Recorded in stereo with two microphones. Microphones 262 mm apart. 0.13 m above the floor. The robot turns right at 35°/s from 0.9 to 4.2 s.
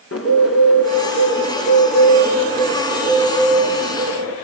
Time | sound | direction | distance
0.1 | a bird | 115° left | 6 m